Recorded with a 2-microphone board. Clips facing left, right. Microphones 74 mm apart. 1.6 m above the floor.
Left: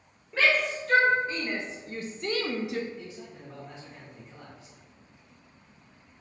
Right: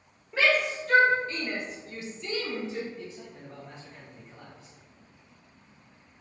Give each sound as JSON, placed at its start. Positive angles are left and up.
{"t": 0.3, "sound": "a shout", "side_deg": -5, "distance_m": 1.3}
{"t": 2.9, "sound": "a man speaking", "side_deg": 5, "distance_m": 1.8}